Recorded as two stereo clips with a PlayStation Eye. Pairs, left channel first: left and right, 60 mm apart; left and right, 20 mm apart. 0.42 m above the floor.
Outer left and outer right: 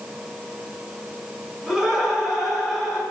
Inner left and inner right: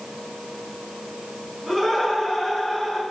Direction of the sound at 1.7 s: 10° right (ahead or behind).